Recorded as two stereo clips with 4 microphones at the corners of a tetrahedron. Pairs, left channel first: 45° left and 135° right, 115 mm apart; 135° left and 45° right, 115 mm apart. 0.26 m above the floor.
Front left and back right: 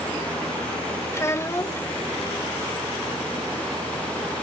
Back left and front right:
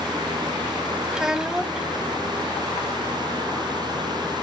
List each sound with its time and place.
1.1 s a child speaking: 30° left, 0.5 m